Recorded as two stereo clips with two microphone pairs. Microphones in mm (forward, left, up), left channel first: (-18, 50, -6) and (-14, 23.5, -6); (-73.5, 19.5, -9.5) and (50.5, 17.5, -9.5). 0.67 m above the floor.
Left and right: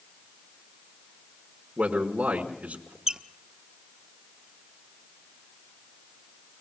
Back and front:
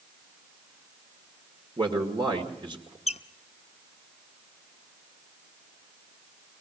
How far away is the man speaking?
About 1.8 m.